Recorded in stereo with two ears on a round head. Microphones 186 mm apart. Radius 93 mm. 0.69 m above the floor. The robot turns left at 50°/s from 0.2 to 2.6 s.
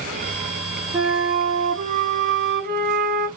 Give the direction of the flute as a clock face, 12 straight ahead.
1 o'clock.